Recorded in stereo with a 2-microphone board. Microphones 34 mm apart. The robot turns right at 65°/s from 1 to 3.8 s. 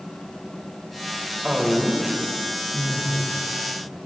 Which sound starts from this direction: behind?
A woman speaking, at 1.4 s.